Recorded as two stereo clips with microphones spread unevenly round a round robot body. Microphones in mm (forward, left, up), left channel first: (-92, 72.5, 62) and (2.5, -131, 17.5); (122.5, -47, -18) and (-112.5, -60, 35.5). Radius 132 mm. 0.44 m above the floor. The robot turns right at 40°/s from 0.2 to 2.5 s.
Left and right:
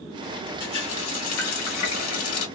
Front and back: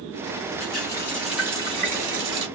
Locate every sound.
0.6 s a running tap: 65° left, 1.6 m; by 2.5 s 140° left, 1.6 m